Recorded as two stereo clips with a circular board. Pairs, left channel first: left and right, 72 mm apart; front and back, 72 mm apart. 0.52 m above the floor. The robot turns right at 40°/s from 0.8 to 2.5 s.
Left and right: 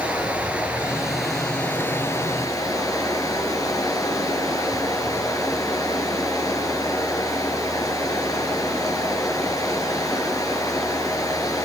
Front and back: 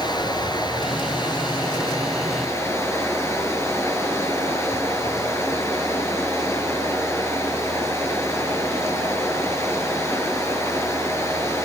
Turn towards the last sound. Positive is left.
turn(degrees=50)